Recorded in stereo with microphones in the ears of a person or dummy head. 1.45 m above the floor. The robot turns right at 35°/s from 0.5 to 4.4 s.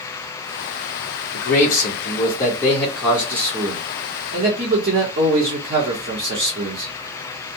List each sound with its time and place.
1.3 s a man speaking: 120° left, 0.9 m; by 6.9 s 135° right, 0.9 m